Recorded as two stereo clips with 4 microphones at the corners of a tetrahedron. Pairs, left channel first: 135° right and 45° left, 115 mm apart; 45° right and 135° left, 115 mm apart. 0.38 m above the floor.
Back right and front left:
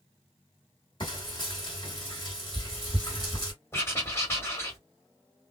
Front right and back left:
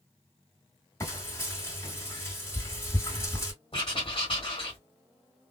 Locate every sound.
1.0 s frying: 100° right, 2 m
3.7 s writing: 70° right, 1.8 m